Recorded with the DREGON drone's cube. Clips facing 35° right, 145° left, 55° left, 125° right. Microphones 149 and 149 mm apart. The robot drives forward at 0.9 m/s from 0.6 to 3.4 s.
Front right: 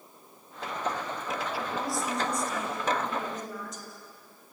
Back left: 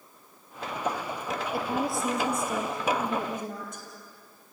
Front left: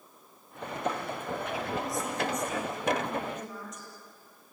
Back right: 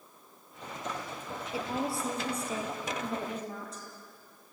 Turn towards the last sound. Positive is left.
turn(degrees=180)